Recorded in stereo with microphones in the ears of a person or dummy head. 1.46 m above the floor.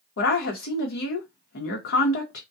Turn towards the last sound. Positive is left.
turn(degrees=70)  # may be behind; listen again after turning